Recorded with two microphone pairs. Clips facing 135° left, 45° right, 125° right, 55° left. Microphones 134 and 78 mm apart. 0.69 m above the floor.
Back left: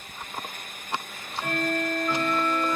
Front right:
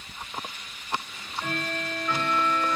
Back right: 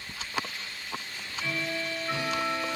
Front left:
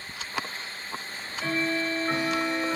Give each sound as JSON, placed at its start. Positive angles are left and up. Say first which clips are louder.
{"t": 1.1, "sound": "ticking", "louder": "back left 2 dB, front left 5 dB", "azimuth_deg": 50, "distance_m": 1.1}